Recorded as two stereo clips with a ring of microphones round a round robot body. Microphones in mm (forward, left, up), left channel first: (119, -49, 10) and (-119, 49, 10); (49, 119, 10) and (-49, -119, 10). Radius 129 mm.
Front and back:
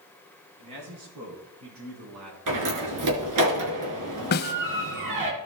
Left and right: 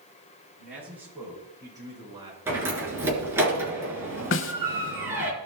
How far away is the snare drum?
About 0.9 m.